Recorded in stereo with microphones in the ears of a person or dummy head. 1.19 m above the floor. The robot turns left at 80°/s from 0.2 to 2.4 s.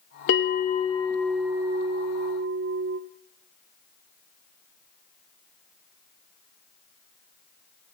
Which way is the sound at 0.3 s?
85° left.